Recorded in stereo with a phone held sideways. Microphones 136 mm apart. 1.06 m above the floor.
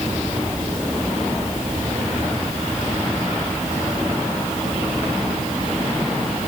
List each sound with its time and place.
Only background noise.